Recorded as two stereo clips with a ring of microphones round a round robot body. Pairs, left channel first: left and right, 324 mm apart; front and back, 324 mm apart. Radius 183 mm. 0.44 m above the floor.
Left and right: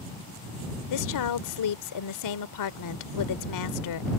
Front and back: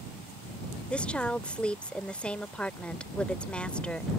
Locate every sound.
0.9 s a woman speaking: 85° left